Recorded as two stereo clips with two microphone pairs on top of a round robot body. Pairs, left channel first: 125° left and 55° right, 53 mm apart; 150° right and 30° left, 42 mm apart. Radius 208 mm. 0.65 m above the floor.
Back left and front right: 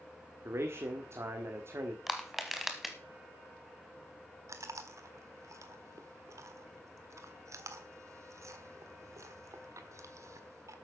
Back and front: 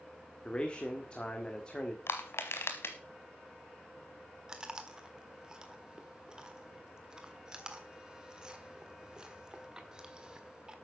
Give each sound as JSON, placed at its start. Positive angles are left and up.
{"t": 0.5, "sound": "a man speaking", "azimuth_deg": -85, "distance_m": 1.9}
{"t": 2.1, "sound": "crushing", "azimuth_deg": -135, "distance_m": 0.7}
{"t": 4.5, "sound": "chewing", "azimuth_deg": -40, "distance_m": 1.6}